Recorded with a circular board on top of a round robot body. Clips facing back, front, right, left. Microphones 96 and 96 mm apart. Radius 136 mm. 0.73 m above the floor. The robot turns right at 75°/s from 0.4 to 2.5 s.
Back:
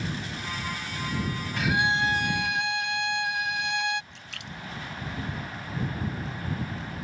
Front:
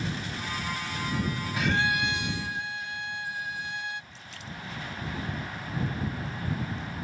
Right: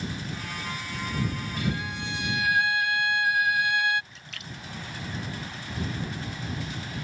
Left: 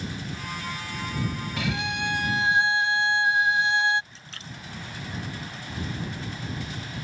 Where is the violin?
85° left; by 4.0 s 160° left.